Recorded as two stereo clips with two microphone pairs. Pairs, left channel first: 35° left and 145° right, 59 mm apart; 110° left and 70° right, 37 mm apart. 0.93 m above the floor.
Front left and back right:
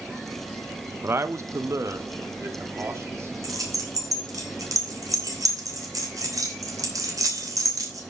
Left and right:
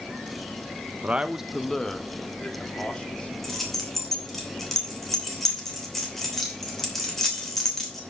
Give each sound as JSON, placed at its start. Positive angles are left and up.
{"t": 1.0, "sound": "a man speaking", "azimuth_deg": -105, "distance_m": 0.7}
{"t": 3.4, "sound": "keys jangling", "azimuth_deg": -165, "distance_m": 3.0}